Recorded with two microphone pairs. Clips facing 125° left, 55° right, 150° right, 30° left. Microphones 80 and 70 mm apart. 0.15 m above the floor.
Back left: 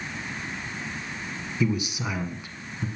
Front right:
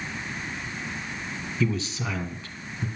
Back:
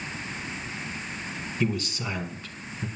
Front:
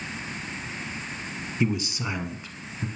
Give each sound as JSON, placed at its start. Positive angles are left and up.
{"t": 1.6, "sound": "a man speaking", "azimuth_deg": 80, "distance_m": 1.2}